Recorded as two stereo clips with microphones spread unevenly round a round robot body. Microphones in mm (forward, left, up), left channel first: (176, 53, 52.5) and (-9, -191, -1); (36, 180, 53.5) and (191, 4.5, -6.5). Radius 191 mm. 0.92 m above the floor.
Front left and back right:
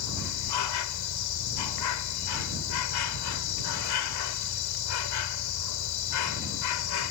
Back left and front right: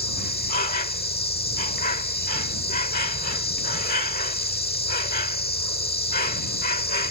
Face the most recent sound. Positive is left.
turn(degrees=80)